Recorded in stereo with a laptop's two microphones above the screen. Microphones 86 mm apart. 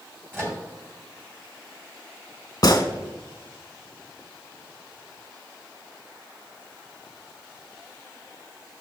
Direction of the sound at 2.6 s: 45° left (ahead or behind).